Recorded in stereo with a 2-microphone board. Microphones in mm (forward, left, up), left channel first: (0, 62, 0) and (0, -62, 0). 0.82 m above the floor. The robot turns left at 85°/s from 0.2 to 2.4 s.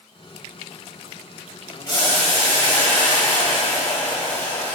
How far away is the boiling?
About 1.6 m.